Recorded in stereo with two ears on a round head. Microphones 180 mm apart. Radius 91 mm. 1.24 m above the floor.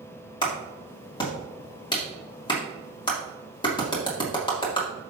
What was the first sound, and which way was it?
A clap, 25° left (ahead or behind).